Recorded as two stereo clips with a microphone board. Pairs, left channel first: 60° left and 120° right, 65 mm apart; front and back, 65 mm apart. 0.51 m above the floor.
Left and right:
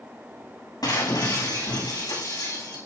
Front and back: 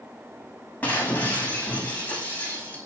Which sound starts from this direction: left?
Breaking glass, at 0.8 s.